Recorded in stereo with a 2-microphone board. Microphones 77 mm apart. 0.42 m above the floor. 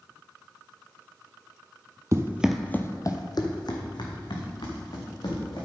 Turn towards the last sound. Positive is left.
turn(degrees=80)